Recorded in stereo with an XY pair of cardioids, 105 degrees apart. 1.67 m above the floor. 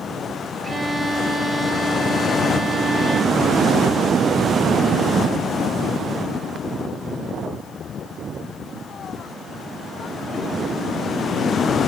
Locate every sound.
0.6 s a violin: 10° right, 0.7 m